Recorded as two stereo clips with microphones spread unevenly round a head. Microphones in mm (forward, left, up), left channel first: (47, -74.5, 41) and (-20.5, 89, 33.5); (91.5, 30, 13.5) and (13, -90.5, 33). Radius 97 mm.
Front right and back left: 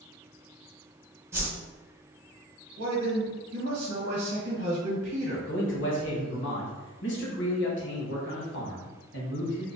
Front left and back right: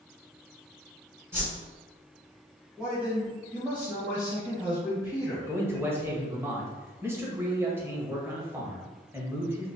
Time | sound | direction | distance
1.3 | a whoosh | 175° right | 0.8 m
2.8 | a man speaking | 150° left | 1.1 m
5.5 | a man speaking | 45° right | 1.3 m